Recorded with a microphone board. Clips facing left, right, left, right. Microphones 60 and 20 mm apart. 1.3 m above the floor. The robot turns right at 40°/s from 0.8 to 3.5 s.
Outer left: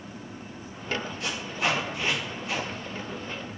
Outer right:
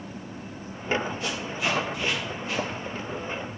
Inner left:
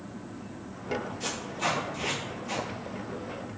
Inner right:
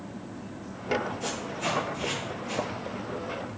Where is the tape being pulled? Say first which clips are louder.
Even, even; 65° left (ahead or behind), 2.5 m; by 2.7 s 5° left (ahead or behind), 2.5 m.